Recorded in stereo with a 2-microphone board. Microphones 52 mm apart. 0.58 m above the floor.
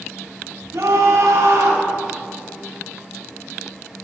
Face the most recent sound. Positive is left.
turn(degrees=-80)